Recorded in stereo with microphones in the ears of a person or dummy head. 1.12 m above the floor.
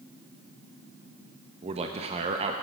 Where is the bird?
I don't hear a bird.